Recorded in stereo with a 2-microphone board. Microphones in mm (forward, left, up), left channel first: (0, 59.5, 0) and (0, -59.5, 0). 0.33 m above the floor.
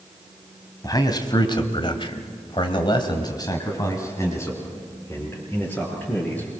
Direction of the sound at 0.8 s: 30° left (ahead or behind).